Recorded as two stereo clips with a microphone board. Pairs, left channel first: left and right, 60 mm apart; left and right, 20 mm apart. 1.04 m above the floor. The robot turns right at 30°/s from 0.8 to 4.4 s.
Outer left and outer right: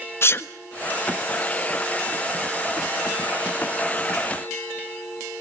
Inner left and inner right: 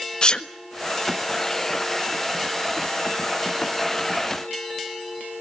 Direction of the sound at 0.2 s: 40° left (ahead or behind).